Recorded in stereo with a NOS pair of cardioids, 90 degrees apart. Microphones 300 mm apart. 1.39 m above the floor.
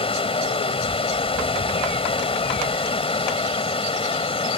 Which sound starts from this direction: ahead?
Running water, at 0.0 s.